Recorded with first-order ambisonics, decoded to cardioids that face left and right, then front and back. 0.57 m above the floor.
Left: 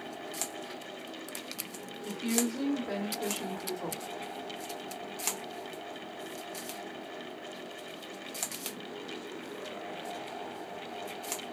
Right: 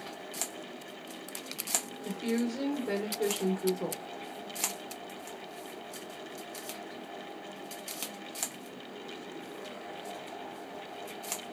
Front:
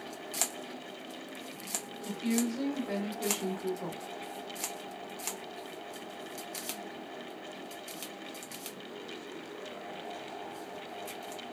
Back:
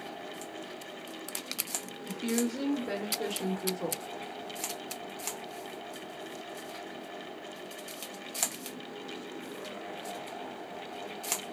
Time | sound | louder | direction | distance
2.0 | a woman speaking | left 4 dB, back 1 dB | 140° right | 1.6 m